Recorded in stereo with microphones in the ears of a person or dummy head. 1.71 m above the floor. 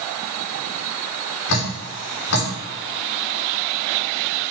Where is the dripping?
65° left (ahead or behind), 2.5 m.